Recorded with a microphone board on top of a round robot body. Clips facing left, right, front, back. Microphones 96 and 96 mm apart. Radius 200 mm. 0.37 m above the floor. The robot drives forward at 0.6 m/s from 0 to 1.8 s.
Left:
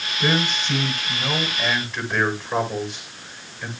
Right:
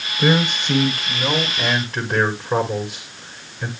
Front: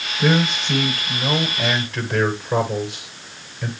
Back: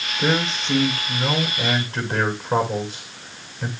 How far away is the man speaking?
About 8 m.